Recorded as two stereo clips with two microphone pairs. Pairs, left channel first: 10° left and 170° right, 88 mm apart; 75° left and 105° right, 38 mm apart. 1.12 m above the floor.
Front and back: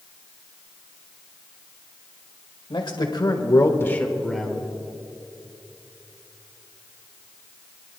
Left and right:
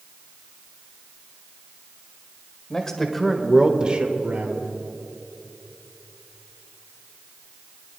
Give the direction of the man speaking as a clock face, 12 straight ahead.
12 o'clock.